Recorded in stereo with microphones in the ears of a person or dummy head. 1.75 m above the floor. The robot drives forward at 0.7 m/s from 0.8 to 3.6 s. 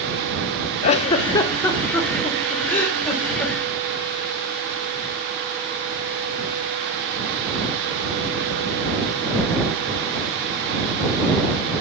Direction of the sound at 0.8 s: 45° left (ahead or behind).